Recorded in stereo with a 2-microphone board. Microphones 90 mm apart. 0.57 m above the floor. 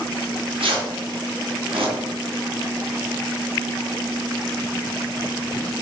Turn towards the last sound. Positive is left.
turn(degrees=-80)